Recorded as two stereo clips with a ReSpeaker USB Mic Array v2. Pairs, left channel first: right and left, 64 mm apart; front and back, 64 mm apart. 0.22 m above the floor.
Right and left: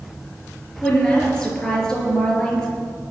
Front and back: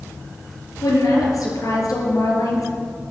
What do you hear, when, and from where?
0.8 s a woman speaking: 5° right, 5 m